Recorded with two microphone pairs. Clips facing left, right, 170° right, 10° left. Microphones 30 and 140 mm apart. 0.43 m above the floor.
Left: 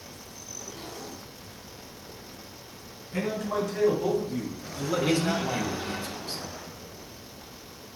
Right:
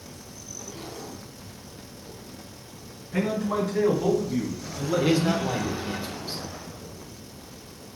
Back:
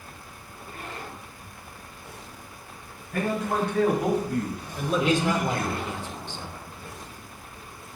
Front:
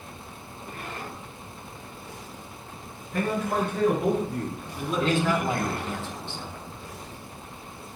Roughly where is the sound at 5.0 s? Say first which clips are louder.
Right 3 dB, front 1 dB; behind right.